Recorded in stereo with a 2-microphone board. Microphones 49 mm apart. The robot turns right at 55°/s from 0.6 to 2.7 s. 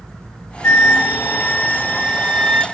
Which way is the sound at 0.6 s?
100° left.